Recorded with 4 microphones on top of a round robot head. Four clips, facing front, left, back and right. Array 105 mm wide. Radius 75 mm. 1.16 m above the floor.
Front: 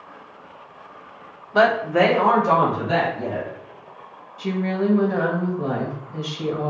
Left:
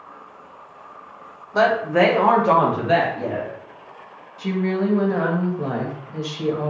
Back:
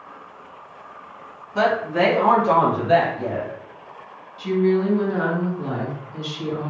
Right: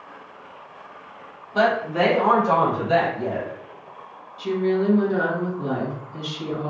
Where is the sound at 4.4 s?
50° left, 1.5 m.